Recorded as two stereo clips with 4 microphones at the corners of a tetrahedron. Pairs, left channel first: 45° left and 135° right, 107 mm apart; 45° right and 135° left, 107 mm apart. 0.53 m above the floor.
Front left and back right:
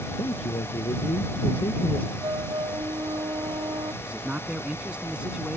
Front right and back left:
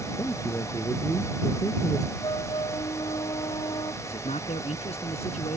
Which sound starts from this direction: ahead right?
A man speaking, at 4.0 s.